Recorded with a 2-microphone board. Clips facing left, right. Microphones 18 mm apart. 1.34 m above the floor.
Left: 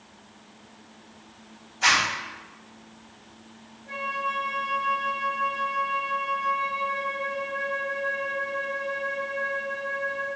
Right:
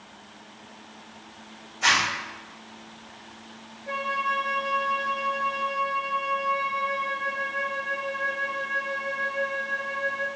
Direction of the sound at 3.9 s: 50° right (ahead or behind).